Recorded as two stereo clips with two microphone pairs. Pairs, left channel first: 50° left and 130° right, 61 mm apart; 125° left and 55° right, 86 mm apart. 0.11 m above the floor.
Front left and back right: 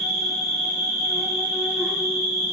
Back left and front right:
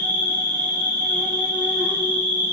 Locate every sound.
0.0 s an insect: 45° right, 1.1 m